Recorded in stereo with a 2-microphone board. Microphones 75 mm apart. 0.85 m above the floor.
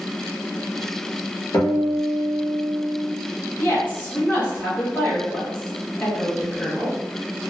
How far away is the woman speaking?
About 1.4 m.